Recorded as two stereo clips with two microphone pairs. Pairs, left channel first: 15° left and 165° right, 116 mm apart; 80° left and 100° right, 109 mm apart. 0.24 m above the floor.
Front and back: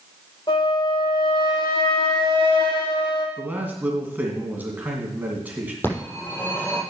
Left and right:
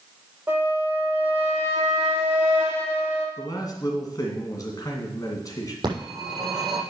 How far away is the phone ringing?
About 6.5 m.